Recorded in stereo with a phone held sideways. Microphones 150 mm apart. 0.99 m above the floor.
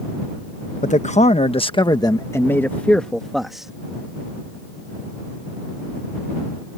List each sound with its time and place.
0.8 s a man speaking: 55° left (ahead or behind); by 3.7 s 5° right (ahead or behind)